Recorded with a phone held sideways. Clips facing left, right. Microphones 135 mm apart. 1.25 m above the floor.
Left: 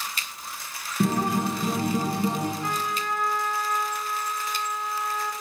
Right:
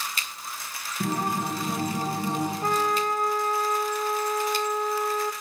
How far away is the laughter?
I don't hear laughter.